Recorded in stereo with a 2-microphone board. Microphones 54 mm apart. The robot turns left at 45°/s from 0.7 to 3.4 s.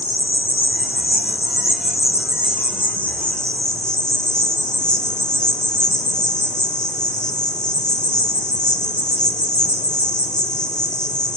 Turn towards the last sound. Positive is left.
turn(degrees=15)